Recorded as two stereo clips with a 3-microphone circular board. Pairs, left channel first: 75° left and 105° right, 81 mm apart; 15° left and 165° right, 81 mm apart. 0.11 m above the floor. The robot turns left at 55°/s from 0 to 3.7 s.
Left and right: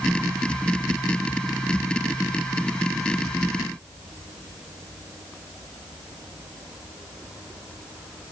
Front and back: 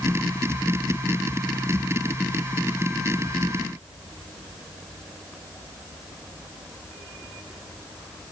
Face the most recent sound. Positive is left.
No sound to turn to.